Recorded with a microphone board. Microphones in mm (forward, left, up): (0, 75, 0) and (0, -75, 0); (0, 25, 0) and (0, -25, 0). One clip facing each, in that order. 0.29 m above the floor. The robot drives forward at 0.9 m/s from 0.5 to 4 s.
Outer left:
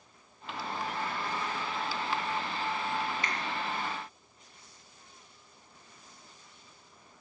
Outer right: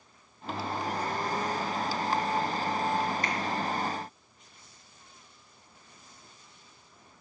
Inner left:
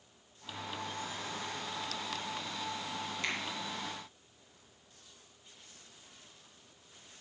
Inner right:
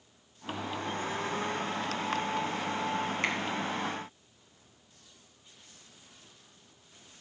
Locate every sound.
3.2 s a finger snap: 45° right (ahead or behind), 3 m; by 3.4 s 40° right (ahead or behind), 3 m